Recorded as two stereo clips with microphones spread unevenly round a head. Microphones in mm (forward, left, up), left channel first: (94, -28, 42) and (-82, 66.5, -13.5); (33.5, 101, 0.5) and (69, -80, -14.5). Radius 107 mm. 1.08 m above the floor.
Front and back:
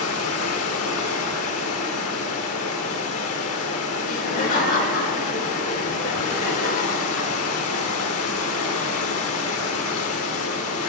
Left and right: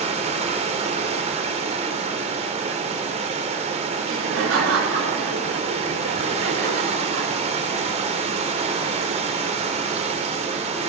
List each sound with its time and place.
0.0 s running water: 25° right, 2 m
4.0 s laughter: 85° right, 5 m